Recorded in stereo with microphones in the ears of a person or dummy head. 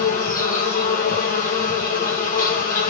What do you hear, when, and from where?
0.0 s an insect: 40° left (ahead or behind), 1.8 m